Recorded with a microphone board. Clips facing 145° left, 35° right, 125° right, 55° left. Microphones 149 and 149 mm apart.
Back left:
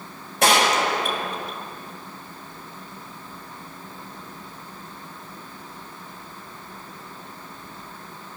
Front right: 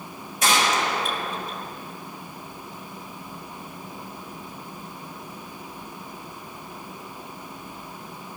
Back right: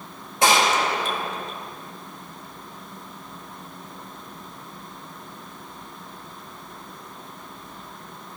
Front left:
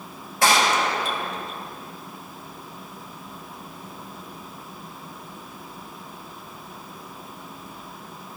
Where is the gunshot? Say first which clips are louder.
Back left 4 dB, back right 1 dB; 165° left, 1.3 m.